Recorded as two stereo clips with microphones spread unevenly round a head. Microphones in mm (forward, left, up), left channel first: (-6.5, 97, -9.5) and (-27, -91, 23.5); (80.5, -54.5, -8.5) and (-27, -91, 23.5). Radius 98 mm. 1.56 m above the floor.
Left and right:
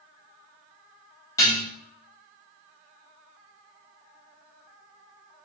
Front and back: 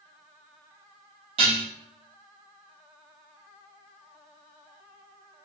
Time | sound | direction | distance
1.4 | dishes clattering | 160° left | 1.4 m